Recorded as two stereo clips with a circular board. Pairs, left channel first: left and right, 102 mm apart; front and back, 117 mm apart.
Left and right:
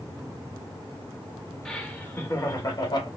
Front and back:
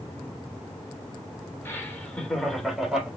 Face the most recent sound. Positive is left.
turn(degrees=100)